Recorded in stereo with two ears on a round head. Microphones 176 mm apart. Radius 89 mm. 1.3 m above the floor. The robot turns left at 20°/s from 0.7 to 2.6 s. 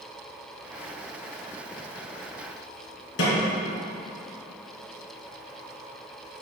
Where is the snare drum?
60° left (ahead or behind), 3 m.